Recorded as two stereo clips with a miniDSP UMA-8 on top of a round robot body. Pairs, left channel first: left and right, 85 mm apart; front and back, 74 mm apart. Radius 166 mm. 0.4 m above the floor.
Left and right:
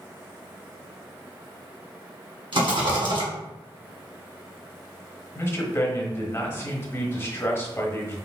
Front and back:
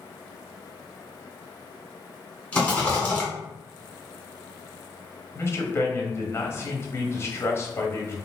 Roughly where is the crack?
I don't hear a crack.